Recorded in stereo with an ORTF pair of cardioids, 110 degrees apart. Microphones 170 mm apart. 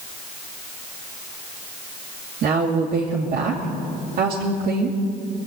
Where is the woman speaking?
60° right, 2.5 m.